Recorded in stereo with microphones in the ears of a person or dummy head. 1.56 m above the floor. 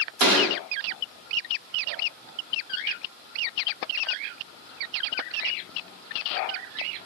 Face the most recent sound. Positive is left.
turn(degrees=-50)  # may be behind; listen again after turning